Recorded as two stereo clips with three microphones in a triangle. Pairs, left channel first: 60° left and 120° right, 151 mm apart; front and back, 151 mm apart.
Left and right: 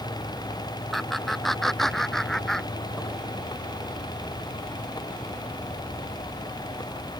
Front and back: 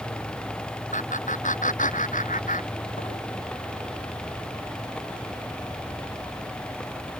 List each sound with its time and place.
0.9 s laughter: 30° right; by 3.2 s 25° right